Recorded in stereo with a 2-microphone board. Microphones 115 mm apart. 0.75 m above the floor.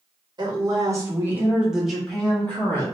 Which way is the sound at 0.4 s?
35° right (ahead or behind).